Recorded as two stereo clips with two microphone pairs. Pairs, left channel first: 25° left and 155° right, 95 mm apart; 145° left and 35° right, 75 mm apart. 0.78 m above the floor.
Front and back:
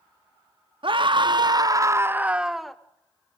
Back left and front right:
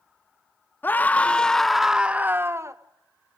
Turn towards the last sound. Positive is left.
turn(degrees=-65)